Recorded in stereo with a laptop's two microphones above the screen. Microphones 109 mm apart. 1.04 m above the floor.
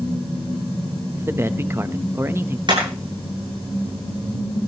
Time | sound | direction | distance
1.2 | a man speaking | 20° right (ahead or behind) | 0.9 m
2.7 | hammering | 45° right (ahead or behind) | 9 m